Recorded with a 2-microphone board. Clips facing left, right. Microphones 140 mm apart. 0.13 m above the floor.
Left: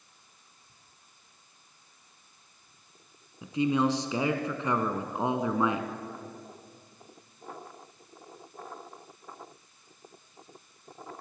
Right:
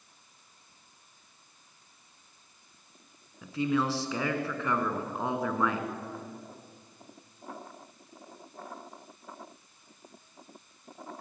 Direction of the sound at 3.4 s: 20° left (ahead or behind).